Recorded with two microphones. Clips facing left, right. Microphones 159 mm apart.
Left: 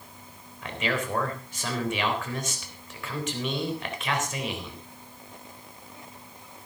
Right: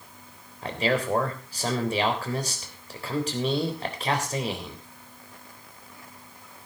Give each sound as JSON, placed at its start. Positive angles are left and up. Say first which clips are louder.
{"t": 0.6, "sound": "a man speaking", "louder": "right 4 dB", "side_deg": -35, "distance_m": 3.5}